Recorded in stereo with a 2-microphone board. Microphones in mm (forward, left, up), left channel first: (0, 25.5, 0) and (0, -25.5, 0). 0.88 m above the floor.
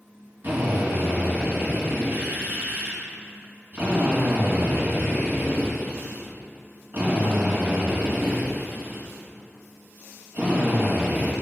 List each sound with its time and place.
0.4 s a drill: 35° right (ahead or behind), 3 m